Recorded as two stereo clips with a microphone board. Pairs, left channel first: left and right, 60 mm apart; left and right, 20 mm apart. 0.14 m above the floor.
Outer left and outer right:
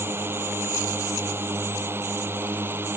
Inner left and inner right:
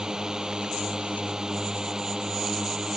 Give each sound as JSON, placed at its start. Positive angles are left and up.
{"t": 0.0, "sound": "a drone", "side_deg": -40}